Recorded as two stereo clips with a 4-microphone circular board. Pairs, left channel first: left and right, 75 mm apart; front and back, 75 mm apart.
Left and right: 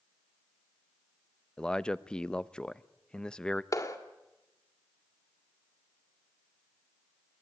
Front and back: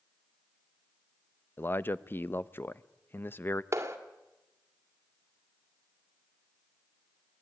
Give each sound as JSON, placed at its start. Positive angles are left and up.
{"t": 1.6, "sound": "a man speaking", "azimuth_deg": 20, "distance_m": 0.6}
{"t": 3.7, "sound": "a clap", "azimuth_deg": 125, "distance_m": 2.0}